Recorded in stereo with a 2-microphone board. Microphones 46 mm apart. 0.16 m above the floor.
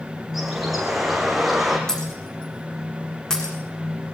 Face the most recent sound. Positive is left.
turn(degrees=15)  # may be behind; listen again after turning